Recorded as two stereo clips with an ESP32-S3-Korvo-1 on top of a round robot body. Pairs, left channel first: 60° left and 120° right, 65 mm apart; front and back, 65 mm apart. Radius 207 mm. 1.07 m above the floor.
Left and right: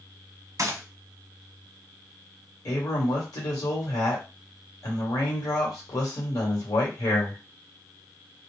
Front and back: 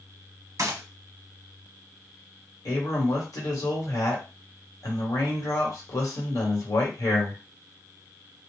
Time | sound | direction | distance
0.6 | a gunshot | 150° right | 1.0 m
2.6 | a man speaking | 35° left | 1.4 m